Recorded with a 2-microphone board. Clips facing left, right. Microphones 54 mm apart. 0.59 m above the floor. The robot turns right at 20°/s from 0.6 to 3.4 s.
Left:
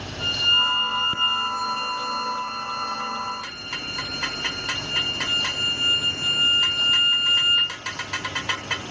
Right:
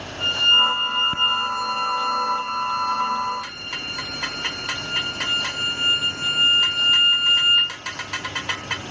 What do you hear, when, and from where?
0.2 s a violin: 140° right, 3.5 m; by 7.7 s 85° right, 3.5 m